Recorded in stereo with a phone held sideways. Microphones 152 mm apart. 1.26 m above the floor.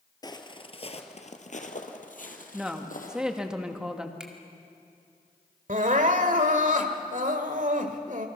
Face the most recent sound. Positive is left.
turn(degrees=-55)  # may be behind; listen again after turning